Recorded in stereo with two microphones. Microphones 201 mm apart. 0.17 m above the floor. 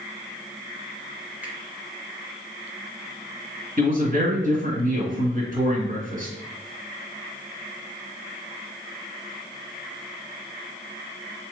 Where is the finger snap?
10° right (ahead or behind), 1.6 m.